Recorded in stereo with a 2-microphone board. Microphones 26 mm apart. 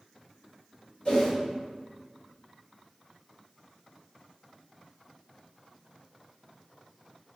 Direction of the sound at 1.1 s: 45° left (ahead or behind).